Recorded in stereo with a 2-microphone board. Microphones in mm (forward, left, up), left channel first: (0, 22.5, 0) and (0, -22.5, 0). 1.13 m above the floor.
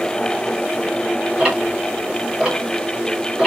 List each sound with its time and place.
1.4 s ticking: 10° right (ahead or behind), 1.2 m